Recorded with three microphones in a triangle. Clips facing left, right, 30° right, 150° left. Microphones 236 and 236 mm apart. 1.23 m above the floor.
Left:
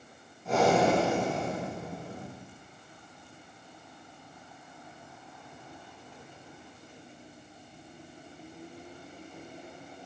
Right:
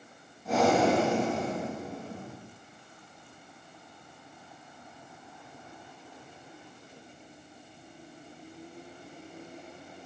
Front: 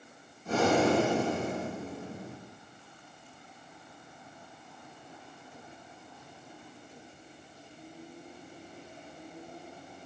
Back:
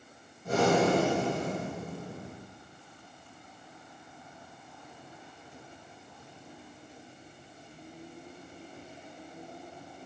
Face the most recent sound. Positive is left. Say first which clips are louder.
# even, back 1 dB
turn(degrees=180)